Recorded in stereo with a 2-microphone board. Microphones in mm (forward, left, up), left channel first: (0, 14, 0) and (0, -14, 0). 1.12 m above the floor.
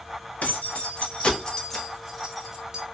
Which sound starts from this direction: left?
Keys jangling, at 0.4 s.